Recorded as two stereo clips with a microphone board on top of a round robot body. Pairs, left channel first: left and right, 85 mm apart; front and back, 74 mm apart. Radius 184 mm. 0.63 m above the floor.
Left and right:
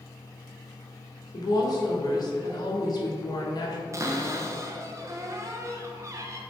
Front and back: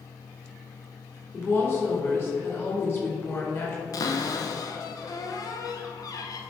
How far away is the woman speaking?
About 1.9 m.